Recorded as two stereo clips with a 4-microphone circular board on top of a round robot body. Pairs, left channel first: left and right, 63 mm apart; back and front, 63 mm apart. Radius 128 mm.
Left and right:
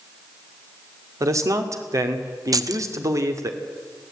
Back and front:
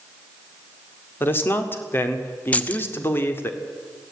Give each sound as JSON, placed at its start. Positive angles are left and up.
{"t": 1.2, "sound": "a man speaking", "azimuth_deg": -125, "distance_m": 2.0}
{"t": 2.5, "sound": "keys jangling", "azimuth_deg": -110, "distance_m": 0.8}